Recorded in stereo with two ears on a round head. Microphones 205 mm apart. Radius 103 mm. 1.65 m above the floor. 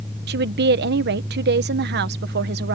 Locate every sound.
0.3 s a woman speaking: 45° right (ahead or behind)